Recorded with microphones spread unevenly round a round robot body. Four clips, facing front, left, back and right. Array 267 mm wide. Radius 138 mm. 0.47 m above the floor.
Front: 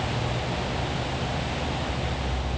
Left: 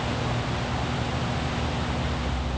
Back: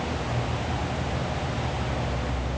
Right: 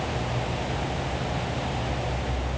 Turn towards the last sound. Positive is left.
No sound to turn to.